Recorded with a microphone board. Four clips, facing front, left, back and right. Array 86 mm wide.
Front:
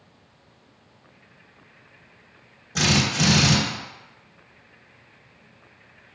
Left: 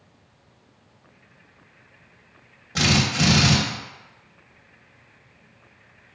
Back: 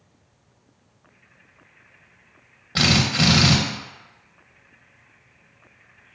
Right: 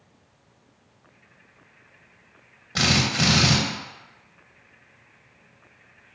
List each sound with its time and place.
2.8 s a drill: 165° right, 0.6 m